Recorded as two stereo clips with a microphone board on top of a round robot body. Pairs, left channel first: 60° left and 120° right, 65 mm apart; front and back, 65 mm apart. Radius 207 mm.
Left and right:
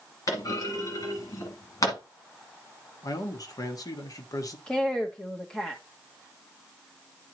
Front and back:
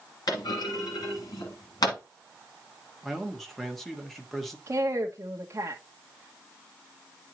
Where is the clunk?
20° left, 1.4 m.